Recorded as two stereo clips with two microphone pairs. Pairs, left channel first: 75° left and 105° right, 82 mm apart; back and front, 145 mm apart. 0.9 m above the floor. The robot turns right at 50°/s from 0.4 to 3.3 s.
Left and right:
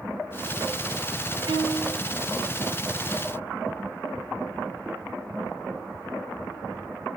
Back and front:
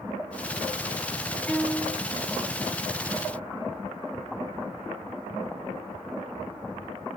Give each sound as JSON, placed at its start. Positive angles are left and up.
{"t": 1.5, "sound": "a violin", "azimuth_deg": -95, "distance_m": 1.2}